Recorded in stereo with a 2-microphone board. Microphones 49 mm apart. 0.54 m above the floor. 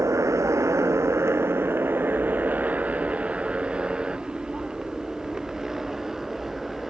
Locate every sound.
0.0 s a motorcycle: 85° right; by 6.9 s 5° right (ahead or behind)